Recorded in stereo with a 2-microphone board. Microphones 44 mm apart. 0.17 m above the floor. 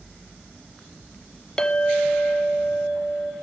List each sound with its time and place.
1.6 s a clink: 15° left (ahead or behind), 0.6 m